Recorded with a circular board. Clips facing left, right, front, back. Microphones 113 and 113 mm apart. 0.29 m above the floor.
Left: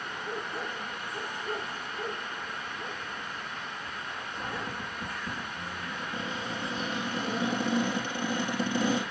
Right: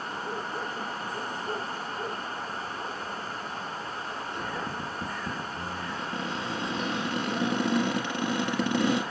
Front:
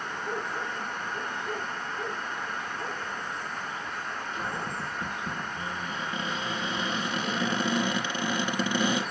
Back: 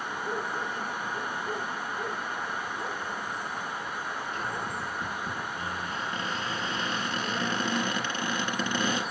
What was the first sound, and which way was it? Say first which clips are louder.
A cupboard door: right 1 dB, front 1 dB; 80° right.